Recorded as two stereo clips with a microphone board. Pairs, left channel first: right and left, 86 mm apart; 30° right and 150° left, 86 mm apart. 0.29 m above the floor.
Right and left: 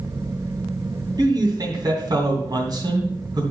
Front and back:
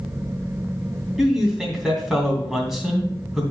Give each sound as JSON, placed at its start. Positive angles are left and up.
{"t": 1.2, "sound": "a man speaking", "azimuth_deg": 65, "distance_m": 2.5}